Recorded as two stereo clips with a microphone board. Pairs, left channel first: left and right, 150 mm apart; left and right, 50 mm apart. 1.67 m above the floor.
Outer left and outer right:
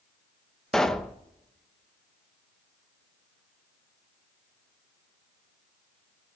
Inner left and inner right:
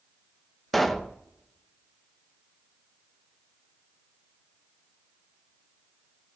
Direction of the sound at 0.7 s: 5° left (ahead or behind).